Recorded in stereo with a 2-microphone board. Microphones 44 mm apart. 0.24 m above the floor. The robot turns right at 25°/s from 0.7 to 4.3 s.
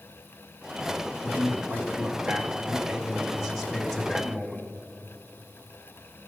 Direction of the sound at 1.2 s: 70° right.